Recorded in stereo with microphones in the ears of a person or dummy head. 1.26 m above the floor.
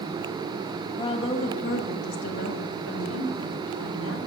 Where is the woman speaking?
20° left (ahead or behind), 1.0 m; by 4.2 s 80° left, 2.5 m.